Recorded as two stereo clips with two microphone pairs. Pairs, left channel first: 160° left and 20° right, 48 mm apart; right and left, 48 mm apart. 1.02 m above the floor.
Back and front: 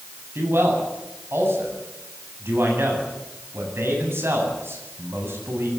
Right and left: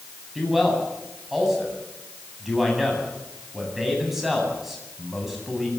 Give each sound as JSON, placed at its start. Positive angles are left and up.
{"t": 0.3, "sound": "a man speaking", "azimuth_deg": 10, "distance_m": 8.5}